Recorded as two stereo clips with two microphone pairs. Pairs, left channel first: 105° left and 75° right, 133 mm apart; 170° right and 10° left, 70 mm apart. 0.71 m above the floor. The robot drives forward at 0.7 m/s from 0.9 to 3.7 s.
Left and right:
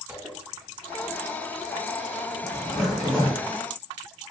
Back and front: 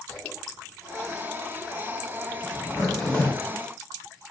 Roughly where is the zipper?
Behind right.